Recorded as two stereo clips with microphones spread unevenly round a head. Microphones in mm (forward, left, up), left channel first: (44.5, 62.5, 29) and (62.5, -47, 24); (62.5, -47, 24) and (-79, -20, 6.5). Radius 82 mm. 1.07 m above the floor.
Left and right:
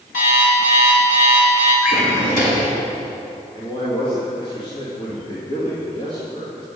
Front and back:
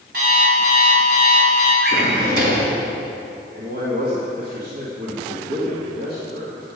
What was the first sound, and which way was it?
An alarm clock, 125° left.